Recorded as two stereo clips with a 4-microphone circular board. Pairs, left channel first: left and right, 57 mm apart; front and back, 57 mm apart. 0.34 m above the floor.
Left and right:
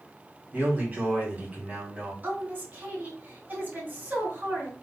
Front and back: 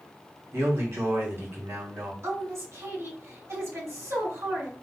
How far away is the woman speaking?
About 2.5 m.